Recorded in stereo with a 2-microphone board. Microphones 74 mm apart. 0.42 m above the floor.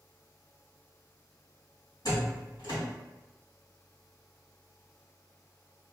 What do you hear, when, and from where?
2.0 s a door slam: 70° left (ahead or behind), 2.0 m